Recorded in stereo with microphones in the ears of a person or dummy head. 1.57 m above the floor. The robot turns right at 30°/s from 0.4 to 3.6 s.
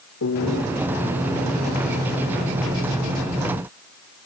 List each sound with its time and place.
0.2 s a piano: 70° left (ahead or behind); by 0.6 s 75° left (ahead or behind)